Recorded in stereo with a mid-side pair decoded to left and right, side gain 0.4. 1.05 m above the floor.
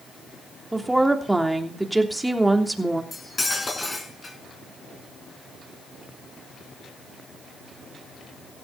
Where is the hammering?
No hammering in this recording.